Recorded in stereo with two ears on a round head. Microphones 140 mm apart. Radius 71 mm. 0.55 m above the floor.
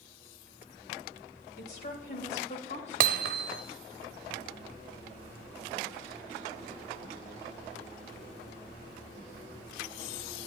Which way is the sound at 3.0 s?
65° right (ahead or behind).